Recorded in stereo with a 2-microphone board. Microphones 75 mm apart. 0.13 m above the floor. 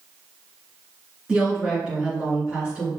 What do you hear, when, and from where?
1.3 s a woman speaking: 15° right (ahead or behind), 1.8 m